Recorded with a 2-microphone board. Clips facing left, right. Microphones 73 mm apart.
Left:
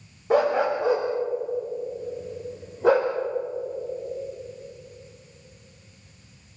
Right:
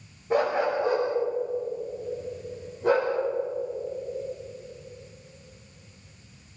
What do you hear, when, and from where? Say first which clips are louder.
0.3 s a dog barking: left 3 dB; 85° left, 7.5 m; by 3.1 s 80° left, 6 m